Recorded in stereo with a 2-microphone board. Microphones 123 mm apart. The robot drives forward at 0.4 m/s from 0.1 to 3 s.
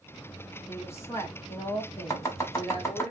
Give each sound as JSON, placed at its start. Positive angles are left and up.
{"t": 0.7, "sound": "a woman speaking", "side_deg": 20, "distance_m": 1.5}
{"t": 2.1, "sound": "chopping", "side_deg": 25, "distance_m": 1.0}